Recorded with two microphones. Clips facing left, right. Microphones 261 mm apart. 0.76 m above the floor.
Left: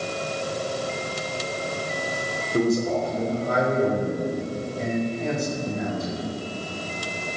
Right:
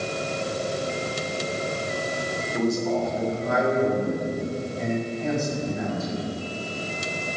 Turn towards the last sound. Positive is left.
turn(degrees=40)  # may be behind; listen again after turning